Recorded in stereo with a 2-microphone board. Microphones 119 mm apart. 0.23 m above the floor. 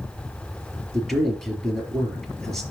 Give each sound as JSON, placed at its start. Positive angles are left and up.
{"t": 0.9, "sound": "a man speaking", "side_deg": 0, "distance_m": 3.5}